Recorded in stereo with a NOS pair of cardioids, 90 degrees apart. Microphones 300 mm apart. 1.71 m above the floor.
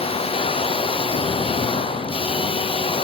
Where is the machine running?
20° left, 0.8 m.